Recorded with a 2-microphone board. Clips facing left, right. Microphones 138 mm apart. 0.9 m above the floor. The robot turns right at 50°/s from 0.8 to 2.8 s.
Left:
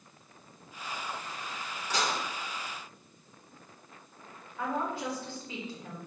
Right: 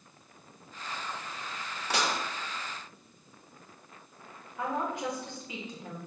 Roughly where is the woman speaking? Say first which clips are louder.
Even; centre.